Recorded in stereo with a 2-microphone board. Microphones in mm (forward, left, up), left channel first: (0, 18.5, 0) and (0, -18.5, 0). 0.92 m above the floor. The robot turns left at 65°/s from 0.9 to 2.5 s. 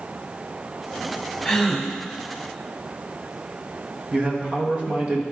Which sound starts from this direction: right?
A man speaking, at 4.1 s.